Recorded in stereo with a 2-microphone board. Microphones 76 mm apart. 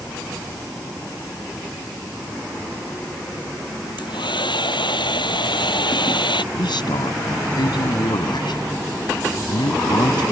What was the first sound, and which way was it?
A hair dryer, 85° left.